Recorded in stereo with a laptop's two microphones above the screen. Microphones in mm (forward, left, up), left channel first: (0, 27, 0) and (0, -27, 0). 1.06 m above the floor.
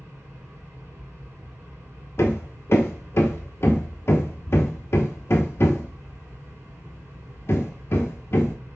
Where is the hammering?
50° left (ahead or behind), 0.7 m.